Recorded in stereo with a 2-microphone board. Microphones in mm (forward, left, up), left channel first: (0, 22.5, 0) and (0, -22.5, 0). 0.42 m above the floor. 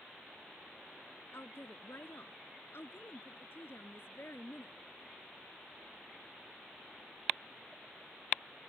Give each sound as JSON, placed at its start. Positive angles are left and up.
{"t": 1.3, "sound": "a woman speaking", "side_deg": 60}